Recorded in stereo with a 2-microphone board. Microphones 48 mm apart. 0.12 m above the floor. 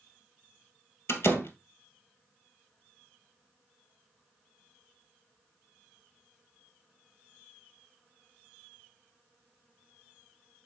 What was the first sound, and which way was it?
A door slam, 65° left (ahead or behind).